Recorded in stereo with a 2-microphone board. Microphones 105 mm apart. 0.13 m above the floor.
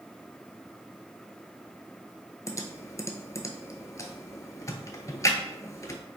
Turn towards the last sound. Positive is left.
turn(degrees=30)  # may be behind; listen again after turning